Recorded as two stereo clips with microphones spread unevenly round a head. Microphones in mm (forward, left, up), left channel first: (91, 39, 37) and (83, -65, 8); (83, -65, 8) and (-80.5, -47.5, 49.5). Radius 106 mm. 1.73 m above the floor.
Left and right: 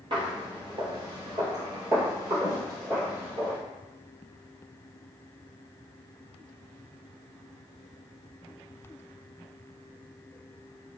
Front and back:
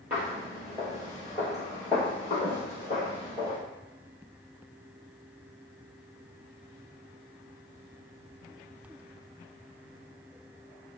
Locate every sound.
0.1 s footsteps: 150° right, 1.9 m; by 3.6 s 70° left, 1.9 m